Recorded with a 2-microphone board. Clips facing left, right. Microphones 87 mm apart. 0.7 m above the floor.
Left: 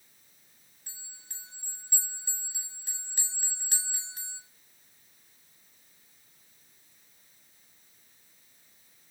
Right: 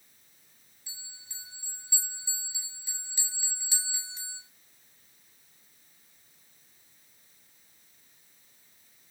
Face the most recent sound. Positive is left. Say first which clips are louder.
# right 2 dB
turn(degrees=65)  # may be behind; listen again after turning